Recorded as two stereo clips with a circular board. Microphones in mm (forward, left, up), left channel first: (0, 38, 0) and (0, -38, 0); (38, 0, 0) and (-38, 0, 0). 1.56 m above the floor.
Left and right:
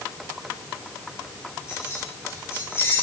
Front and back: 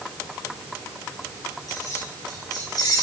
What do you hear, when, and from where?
1.7 s keys jangling: 35° left, 5 m; by 3.0 s 30° left, 4 m